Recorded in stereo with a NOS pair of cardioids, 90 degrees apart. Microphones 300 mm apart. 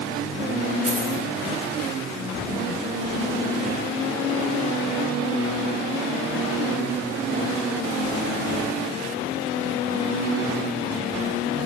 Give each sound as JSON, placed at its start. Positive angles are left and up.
{"t": 0.9, "sound": "a dropped coin", "azimuth_deg": -25, "distance_m": 2.5}